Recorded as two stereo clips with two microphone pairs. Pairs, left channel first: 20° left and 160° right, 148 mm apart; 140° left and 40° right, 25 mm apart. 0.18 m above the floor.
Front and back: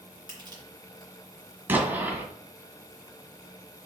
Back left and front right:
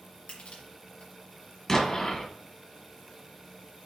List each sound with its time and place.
0.3 s crushing: 145° left, 3 m
1.7 s an explosion: 150° left, 1.5 m